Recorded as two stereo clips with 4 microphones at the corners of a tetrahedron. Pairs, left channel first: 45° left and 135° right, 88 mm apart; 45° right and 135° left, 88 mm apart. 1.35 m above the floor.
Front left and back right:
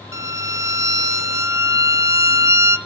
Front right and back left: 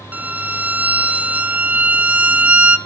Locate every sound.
0.1 s a violin: 160° right, 0.8 m